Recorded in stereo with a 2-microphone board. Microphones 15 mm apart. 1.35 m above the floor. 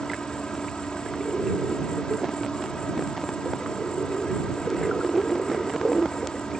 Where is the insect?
55° left (ahead or behind).